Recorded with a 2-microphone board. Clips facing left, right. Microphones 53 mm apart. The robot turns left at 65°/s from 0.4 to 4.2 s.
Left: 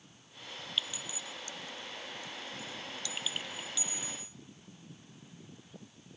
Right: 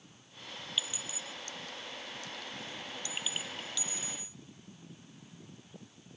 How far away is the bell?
No bell in this recording.